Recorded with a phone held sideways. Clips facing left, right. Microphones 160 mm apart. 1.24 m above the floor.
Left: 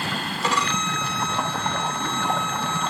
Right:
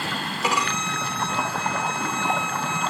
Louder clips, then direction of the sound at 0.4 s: Even; 10° right (ahead or behind).